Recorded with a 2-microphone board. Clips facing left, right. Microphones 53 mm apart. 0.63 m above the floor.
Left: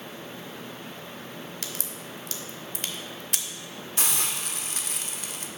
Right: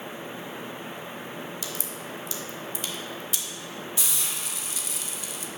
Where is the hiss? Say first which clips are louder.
Left 3 dB; 50° left (ahead or behind), 0.5 m.